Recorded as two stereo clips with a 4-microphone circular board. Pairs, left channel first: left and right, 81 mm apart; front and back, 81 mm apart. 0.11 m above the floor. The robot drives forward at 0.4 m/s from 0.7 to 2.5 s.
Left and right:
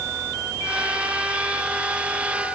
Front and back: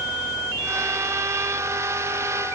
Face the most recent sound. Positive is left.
No sound to turn to.